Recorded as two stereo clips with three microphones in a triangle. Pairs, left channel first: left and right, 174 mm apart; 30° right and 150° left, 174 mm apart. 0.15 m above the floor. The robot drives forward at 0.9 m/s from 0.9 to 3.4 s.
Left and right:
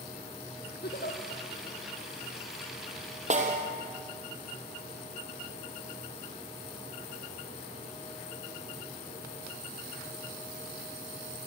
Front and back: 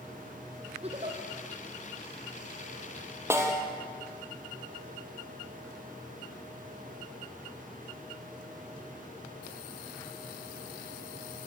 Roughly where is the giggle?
Left.